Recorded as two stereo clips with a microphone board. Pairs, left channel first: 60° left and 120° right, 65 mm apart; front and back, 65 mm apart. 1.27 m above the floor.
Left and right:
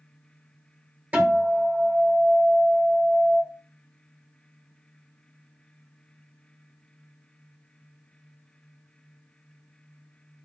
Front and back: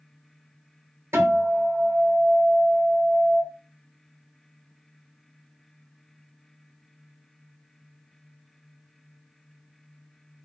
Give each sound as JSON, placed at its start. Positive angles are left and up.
{"t": 1.1, "sound": "a guitar", "azimuth_deg": -175, "distance_m": 1.2}